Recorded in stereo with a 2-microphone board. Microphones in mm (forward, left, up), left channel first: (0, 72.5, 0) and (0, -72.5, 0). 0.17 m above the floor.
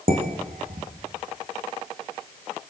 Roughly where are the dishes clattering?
Right.